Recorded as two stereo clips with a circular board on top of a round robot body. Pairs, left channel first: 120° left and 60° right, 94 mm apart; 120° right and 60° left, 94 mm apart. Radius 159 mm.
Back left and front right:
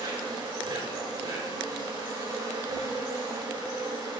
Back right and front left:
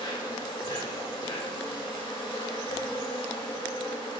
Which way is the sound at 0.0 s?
90° right.